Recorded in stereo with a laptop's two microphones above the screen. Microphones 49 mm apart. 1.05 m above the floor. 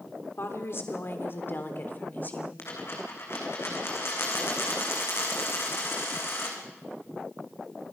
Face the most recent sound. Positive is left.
turn(degrees=55)  # may be behind; listen again after turning